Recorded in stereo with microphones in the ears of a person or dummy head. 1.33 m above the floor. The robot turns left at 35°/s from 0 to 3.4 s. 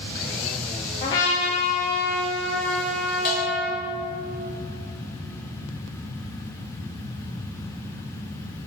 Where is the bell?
55° left (ahead or behind), 1.7 m; by 3.8 s 50° left (ahead or behind), 1.7 m.